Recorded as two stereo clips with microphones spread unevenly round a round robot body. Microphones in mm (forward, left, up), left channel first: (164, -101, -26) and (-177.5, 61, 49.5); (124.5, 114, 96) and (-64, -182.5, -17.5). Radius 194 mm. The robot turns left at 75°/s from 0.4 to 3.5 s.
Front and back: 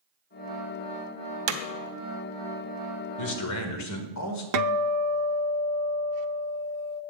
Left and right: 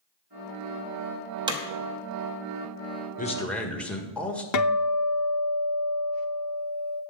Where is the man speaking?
20° right, 1.5 m; by 4.4 s 40° right, 1.5 m.